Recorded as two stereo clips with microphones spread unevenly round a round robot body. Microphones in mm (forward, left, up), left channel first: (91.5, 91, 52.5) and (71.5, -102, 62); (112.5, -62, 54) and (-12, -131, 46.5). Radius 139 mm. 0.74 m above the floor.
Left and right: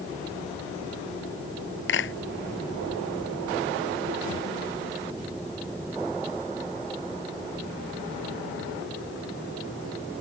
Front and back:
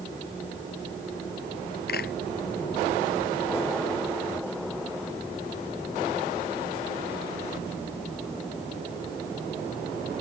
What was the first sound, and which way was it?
A clap, 65° left.